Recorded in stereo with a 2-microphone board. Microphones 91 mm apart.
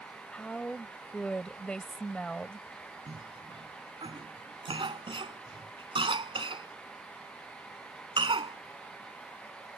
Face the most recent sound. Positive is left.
turn(degrees=-65)  # may be behind; listen again after turning